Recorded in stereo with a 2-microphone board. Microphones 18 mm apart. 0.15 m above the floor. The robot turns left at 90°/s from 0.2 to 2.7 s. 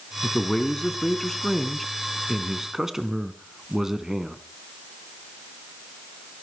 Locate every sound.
0.2 s a man speaking: 160° left, 1.4 m; by 4.4 s 60° right, 1.4 m